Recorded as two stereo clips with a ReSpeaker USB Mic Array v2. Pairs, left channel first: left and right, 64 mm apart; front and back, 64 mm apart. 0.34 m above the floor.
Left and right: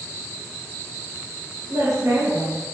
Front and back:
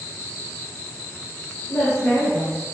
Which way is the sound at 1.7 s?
55° right.